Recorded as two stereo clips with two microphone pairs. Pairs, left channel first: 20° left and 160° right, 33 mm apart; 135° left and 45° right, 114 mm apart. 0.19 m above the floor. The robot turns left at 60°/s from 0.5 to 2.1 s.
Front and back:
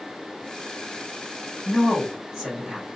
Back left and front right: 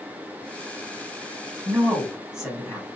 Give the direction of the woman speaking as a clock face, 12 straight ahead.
3 o'clock.